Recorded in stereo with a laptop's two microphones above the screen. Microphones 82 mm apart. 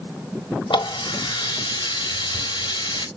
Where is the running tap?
75° left (ahead or behind), 1.3 m.